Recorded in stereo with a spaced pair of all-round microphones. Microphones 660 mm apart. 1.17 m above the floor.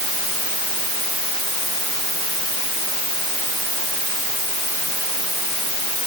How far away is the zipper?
I don't hear a zipper.